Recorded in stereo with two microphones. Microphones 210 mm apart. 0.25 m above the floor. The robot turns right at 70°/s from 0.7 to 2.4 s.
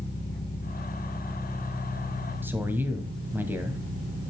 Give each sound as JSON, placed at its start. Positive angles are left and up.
{"t": 0.0, "sound": "an engine running", "azimuth_deg": 125, "distance_m": 8.0}
{"t": 2.4, "sound": "a man speaking", "side_deg": -10, "distance_m": 1.8}